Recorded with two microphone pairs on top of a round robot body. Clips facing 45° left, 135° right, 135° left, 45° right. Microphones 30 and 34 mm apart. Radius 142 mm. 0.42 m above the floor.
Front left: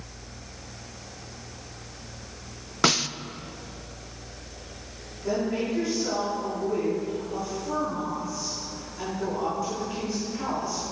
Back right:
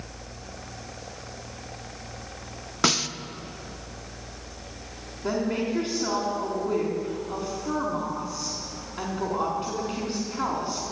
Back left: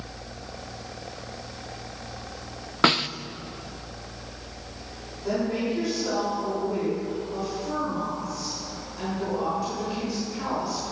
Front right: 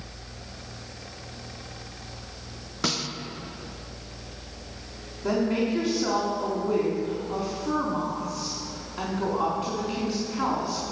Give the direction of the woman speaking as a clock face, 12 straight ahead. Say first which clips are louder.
Even, front right 2 dB; 3 o'clock.